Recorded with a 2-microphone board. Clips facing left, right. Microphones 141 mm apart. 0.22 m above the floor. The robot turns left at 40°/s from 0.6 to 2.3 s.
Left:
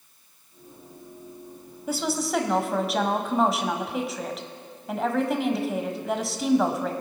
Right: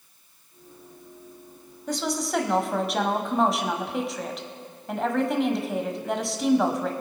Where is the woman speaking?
5° left (ahead or behind), 1.0 m; by 6.9 s centre (ahead or behind), 1.0 m.